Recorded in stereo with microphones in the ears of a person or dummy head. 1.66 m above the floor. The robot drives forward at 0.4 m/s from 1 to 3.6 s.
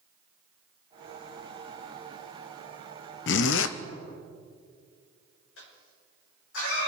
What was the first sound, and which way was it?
A zipper, 75° left (ahead or behind).